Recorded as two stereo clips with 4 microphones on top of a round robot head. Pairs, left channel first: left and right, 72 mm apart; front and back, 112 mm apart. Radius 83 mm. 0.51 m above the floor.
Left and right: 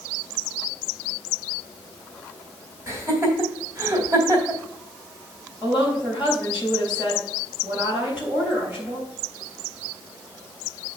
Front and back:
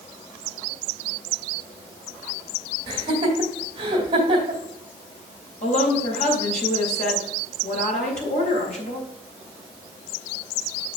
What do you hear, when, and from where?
2.9 s laughter: 135° right, 2 m
5.6 s a woman speaking: 15° right, 3.5 m